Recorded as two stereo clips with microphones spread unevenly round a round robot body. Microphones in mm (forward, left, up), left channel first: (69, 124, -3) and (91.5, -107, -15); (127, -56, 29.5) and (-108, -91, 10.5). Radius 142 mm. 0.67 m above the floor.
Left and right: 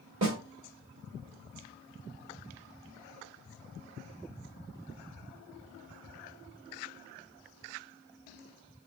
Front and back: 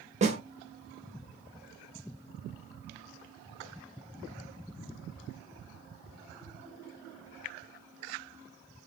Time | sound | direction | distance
0.2 | a snare drum | 115° right | 1.8 m